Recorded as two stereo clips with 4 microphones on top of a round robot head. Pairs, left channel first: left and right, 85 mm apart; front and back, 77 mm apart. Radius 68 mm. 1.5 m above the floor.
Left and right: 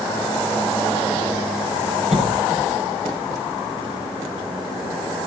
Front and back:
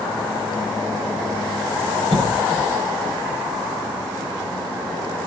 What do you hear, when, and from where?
2.1 s a cough: 130° right, 5 m